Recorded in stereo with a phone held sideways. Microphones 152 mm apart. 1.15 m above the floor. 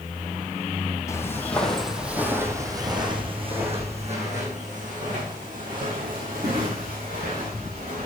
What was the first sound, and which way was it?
Footsteps, 20° left (ahead or behind).